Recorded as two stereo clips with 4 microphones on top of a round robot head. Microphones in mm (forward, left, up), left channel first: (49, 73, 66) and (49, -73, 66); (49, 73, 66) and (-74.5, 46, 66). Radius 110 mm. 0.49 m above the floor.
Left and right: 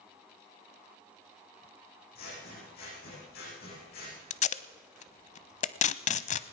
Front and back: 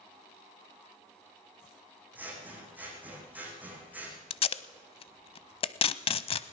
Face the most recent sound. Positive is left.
turn(degrees=55)